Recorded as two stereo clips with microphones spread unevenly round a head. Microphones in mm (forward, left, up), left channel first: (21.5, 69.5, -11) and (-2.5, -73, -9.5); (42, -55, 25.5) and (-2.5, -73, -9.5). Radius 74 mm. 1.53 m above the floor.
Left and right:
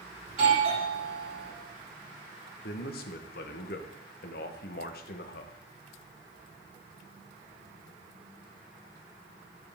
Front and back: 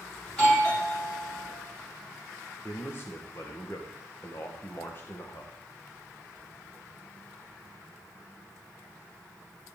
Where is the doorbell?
50° right, 4 m.